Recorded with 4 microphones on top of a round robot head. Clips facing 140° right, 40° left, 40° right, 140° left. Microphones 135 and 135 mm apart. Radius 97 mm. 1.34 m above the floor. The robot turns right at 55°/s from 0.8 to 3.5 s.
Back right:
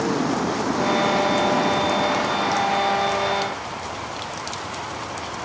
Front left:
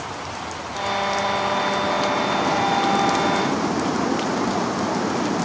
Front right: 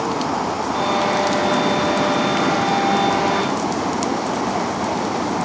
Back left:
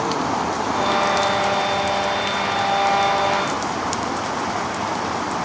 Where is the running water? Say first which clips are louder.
Back right 10 dB, front right 1 dB; 125° right; by 5.5 s 25° left.